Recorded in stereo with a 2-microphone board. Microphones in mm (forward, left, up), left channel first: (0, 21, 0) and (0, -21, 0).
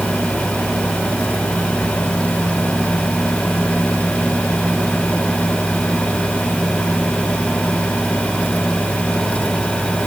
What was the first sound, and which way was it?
Only background noise.